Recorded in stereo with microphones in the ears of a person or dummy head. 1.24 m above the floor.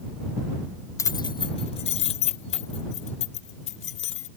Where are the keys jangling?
15° left (ahead or behind); by 4.3 s 40° left (ahead or behind).